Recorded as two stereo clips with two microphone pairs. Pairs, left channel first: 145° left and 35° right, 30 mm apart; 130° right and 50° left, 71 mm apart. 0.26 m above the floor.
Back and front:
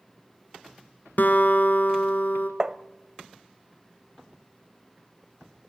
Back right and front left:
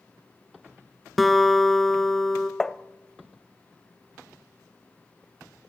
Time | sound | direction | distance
1.2 | a guitar | 145° left | 1.5 m
2.6 | tapping | 50° right | 0.6 m